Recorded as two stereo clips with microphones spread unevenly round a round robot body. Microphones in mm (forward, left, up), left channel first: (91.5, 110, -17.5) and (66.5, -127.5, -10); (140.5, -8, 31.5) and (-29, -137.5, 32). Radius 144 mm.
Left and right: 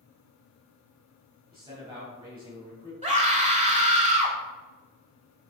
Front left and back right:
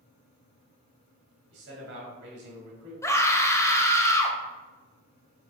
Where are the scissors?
No scissors in this recording.